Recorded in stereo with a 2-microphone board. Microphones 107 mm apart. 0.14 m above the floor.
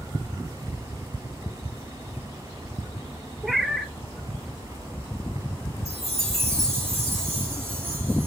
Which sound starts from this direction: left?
A chime, at 5.8 s.